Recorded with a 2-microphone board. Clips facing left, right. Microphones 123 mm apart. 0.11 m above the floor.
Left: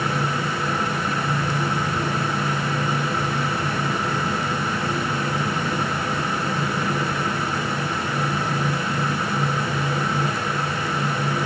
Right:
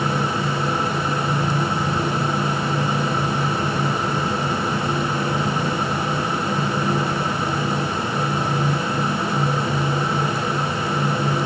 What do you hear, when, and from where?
Only background noise.